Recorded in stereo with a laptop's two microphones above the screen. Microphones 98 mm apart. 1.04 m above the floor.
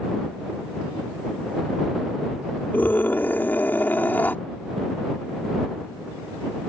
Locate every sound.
2.7 s a scream: 20° left (ahead or behind)